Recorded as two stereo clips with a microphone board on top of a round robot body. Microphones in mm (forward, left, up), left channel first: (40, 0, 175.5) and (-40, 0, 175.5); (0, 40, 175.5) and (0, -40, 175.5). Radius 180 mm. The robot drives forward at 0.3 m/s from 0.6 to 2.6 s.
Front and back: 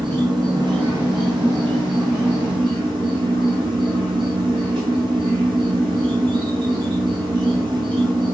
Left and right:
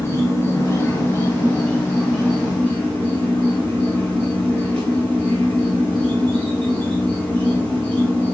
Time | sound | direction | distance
0.0 | an insect | 150° left | 0.7 m